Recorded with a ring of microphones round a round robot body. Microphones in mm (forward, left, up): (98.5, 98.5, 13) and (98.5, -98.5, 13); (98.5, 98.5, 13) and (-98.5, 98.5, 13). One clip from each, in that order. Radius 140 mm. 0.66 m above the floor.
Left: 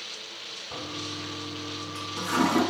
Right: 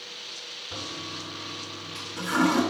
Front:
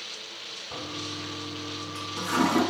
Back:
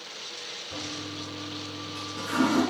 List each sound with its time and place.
0.7 s a toilet flushing: 20° left, 3.5 m